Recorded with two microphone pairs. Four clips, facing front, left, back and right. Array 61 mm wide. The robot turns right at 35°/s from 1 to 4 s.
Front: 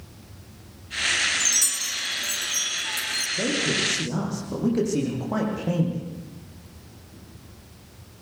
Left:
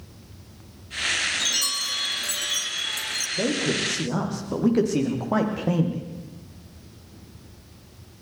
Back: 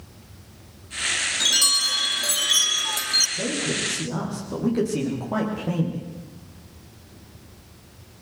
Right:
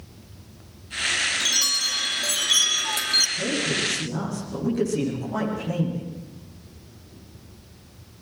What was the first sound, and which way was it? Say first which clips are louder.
A chime: right 2 dB, back 5 dB; 170° right.